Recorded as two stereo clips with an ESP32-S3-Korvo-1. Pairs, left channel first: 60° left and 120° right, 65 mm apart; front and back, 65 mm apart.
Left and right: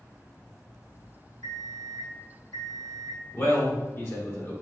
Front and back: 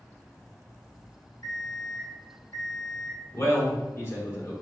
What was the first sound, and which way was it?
An alarm clock, 35° left.